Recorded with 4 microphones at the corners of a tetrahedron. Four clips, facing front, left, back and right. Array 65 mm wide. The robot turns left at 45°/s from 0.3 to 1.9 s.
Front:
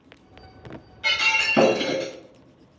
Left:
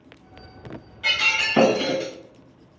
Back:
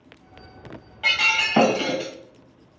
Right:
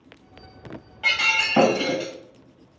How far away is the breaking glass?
About 1.6 m.